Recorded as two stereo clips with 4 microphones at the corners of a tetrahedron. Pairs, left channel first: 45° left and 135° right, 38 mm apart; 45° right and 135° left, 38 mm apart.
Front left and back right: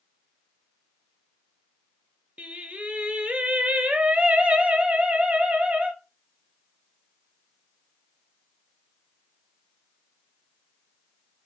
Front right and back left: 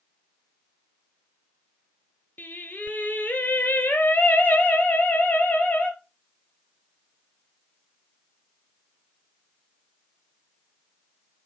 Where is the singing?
85° right, 0.6 m.